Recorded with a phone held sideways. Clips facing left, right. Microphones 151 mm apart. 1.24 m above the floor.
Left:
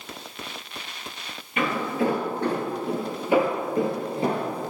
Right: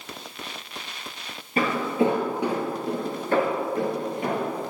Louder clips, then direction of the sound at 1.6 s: Right 2 dB; 35° right (ahead or behind).